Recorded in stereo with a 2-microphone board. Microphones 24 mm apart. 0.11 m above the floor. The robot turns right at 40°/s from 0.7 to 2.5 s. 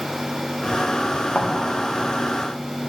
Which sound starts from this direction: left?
A thud, at 1.4 s.